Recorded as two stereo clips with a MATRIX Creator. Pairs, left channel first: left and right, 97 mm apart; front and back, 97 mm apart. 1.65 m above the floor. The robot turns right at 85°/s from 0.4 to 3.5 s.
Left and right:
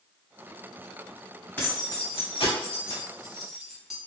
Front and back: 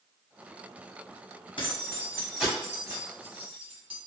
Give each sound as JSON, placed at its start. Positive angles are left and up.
{"t": 1.6, "sound": "keys jangling", "azimuth_deg": 15, "distance_m": 1.0}